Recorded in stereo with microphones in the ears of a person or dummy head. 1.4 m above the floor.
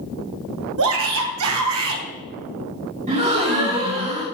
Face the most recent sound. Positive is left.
turn(degrees=-35)  # may be behind; listen again after turning